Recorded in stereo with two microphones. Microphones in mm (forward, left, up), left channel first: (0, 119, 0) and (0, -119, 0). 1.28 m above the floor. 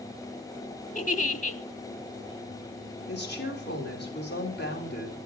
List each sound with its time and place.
0.9 s a giggle: 30° left (ahead or behind), 1.2 m
3.1 s a woman speaking: 40° left (ahead or behind), 4 m